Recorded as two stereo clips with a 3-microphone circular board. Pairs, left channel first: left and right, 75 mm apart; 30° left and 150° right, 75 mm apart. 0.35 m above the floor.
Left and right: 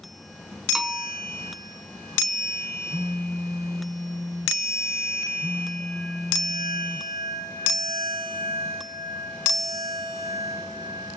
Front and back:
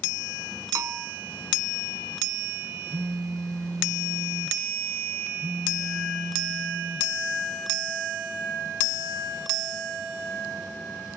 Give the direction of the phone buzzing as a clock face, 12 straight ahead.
4 o'clock.